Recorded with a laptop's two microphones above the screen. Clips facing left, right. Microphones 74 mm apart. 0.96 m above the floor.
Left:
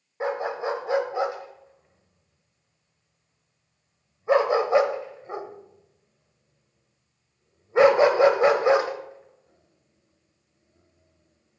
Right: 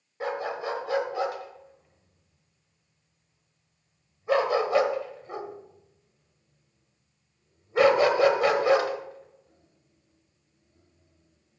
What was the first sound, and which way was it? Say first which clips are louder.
A dog barking: left 3 dB; 25° left (ahead or behind).